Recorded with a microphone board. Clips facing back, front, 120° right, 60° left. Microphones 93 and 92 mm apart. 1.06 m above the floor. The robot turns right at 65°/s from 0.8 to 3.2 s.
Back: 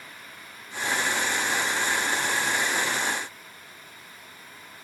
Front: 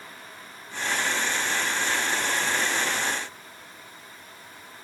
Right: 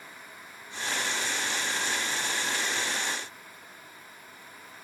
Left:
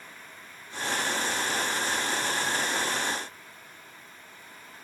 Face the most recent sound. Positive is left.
No sound to turn to.